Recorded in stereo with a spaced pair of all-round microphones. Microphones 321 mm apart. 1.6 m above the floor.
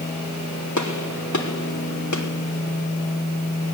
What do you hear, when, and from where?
0.8 s a gunshot: 60° left (ahead or behind), 3.5 m